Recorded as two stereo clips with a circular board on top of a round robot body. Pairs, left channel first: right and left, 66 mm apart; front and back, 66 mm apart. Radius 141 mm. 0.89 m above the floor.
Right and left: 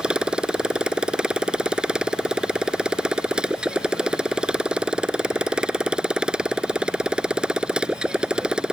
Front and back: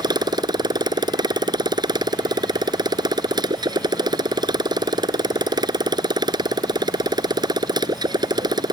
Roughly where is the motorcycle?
Behind.